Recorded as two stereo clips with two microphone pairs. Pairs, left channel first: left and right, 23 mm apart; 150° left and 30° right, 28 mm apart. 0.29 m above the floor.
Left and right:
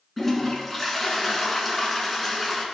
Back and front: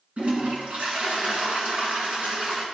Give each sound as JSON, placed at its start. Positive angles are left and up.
{"t": 0.2, "sound": "a toilet flushing", "azimuth_deg": 0, "distance_m": 1.5}